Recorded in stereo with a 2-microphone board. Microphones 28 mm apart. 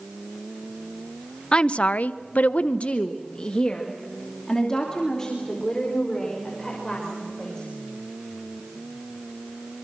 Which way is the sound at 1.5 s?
35° left (ahead or behind).